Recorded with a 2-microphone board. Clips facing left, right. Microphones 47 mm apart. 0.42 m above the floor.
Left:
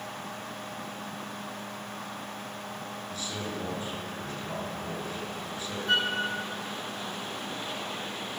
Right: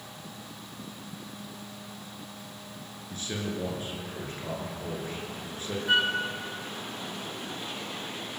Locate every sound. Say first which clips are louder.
3.1 s a man speaking: right 3 dB; 35° right (ahead or behind), 7 m
5.9 s a flute: right 2 dB; 10° right (ahead or behind), 3.5 m